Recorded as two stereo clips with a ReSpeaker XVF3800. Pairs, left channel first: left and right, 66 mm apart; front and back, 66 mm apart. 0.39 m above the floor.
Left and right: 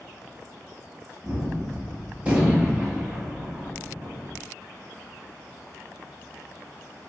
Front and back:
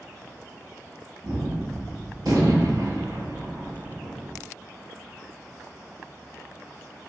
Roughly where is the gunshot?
Behind right.